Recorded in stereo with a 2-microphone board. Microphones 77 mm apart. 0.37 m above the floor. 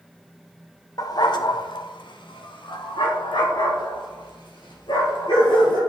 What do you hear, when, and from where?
1.0 s a dog barking: 50° left (ahead or behind), 0.6 m; by 5.8 s 70° left (ahead or behind), 3 m